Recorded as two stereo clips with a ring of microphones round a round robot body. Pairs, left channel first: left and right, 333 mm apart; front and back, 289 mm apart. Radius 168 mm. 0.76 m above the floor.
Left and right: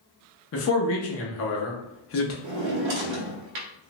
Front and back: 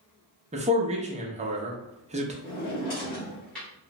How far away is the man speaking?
About 0.8 m.